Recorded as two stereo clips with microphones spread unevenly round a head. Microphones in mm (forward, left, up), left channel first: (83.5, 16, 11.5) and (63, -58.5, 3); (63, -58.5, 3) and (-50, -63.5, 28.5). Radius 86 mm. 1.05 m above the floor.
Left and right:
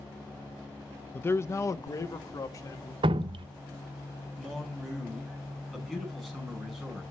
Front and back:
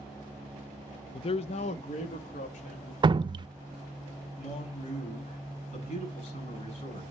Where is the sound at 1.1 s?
5° left, 0.5 m; by 2.9 s 30° left, 2.5 m.